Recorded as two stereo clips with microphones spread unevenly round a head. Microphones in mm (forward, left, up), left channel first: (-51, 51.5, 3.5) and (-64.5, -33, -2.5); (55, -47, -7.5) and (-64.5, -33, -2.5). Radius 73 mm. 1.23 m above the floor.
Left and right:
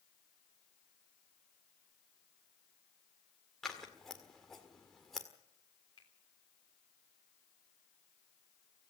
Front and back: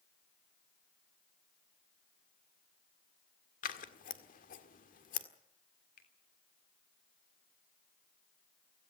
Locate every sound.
3.6 s scissors: 5° right, 1.7 m
6.0 s a finger snap: 15° left, 3.5 m